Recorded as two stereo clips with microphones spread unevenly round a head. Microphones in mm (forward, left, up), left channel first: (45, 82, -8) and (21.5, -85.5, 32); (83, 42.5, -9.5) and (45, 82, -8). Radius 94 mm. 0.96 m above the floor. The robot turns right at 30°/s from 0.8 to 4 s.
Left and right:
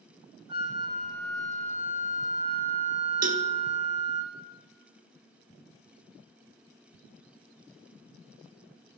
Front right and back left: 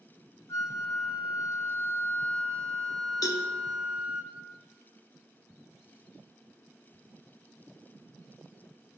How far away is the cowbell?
About 0.8 m.